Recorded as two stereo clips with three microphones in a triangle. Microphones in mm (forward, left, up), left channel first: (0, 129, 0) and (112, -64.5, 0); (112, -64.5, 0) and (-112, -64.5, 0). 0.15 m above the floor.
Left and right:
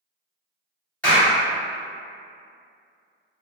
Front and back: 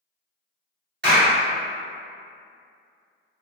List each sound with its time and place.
1.0 s a clap: 160° right, 1.9 m